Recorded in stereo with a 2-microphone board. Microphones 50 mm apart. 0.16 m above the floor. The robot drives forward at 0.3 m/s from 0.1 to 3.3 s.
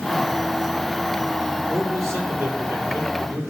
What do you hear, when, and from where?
1.7 s a man speaking: 70° right (ahead or behind), 4 m